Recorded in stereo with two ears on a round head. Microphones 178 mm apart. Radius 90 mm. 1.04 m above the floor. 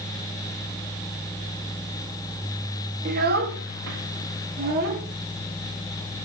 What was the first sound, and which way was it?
A child speaking, 40° right (ahead or behind).